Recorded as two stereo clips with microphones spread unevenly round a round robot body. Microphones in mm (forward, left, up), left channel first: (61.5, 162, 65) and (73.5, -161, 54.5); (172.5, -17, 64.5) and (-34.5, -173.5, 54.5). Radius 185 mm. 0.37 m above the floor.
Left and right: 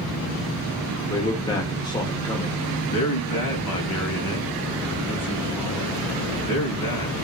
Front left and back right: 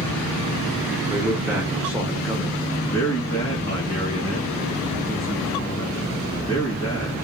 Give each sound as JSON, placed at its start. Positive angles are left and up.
{"t": 1.1, "sound": "a man speaking", "azimuth_deg": 150, "distance_m": 1.2}
{"t": 2.9, "sound": "a man speaking", "azimuth_deg": 100, "distance_m": 3.0}